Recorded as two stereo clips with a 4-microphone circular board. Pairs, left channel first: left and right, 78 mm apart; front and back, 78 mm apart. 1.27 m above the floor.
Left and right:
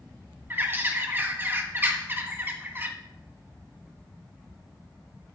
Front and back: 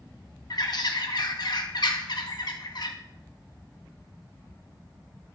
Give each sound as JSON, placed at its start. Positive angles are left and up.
{"t": 0.5, "sound": "a bird", "azimuth_deg": -25, "distance_m": 1.2}